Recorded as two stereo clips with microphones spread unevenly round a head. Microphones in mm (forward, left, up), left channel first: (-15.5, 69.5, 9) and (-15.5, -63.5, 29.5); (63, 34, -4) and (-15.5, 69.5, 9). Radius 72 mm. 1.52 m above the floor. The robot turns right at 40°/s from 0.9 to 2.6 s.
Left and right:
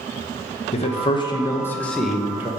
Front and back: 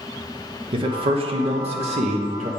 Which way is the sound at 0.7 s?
130° left.